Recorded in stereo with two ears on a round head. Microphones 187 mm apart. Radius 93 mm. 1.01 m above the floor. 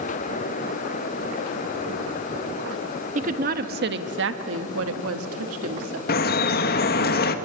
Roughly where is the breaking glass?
No breaking glass in this recording.